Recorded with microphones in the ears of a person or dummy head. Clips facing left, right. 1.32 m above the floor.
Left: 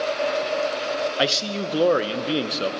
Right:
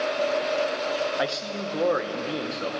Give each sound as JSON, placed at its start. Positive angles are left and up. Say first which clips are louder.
{"t": 1.2, "sound": "a man speaking", "louder": "left 4 dB", "side_deg": 40, "distance_m": 1.0}